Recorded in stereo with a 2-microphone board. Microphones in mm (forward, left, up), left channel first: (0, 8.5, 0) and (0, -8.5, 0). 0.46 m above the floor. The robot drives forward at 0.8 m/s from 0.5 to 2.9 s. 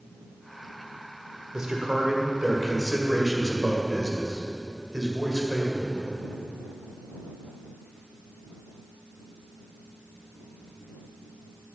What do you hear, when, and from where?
1.5 s a man speaking: 40° right (ahead or behind), 1.6 m; by 6.2 s 30° right (ahead or behind), 2 m